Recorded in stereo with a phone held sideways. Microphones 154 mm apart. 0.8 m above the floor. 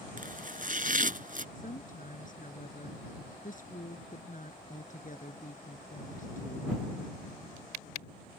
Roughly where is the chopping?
Right.